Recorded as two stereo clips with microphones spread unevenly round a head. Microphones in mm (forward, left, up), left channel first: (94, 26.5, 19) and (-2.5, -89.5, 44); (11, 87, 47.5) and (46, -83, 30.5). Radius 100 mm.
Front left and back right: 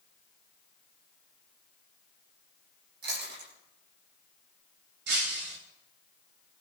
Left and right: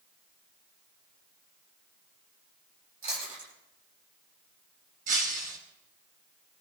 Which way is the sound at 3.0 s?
130° right.